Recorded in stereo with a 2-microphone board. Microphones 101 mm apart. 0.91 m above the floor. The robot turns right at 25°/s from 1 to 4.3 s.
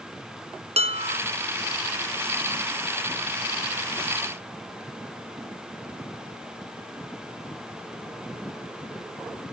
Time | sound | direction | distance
0.8 | dishes clattering | 80° right | 1.1 m